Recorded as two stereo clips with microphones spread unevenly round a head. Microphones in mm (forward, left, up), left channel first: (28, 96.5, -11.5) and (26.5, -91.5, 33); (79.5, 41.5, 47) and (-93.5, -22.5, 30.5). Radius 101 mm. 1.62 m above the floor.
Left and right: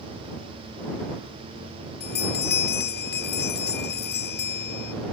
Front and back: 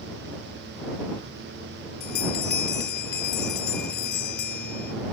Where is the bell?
55° left.